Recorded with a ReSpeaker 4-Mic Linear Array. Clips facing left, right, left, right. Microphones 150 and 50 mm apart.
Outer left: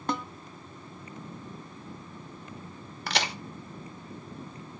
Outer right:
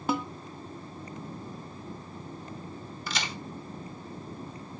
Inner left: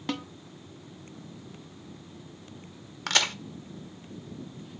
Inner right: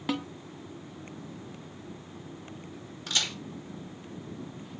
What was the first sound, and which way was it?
A snare drum, 5° right (ahead or behind).